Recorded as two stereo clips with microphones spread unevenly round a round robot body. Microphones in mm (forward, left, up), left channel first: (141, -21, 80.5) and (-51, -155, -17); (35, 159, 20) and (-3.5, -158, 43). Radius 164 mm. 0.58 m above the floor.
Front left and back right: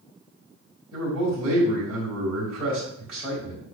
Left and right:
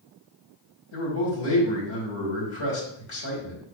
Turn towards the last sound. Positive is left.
turn(degrees=130)